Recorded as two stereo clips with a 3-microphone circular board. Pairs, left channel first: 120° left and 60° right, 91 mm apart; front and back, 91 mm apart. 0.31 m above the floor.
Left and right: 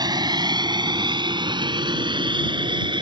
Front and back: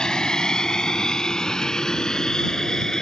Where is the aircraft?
80° right.